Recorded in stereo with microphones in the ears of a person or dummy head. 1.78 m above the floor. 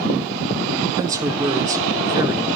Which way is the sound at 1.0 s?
15° right (ahead or behind).